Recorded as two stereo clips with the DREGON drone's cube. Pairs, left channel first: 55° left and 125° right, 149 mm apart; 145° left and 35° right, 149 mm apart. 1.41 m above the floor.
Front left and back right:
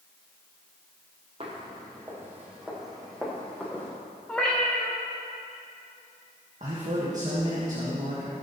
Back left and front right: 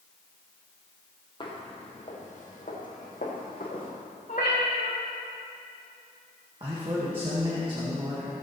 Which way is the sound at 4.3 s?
140° left.